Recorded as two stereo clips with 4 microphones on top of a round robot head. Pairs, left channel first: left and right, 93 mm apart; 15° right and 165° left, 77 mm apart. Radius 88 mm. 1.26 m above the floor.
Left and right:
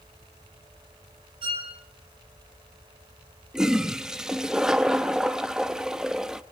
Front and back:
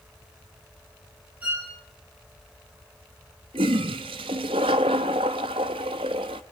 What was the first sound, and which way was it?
A violin, 115° right.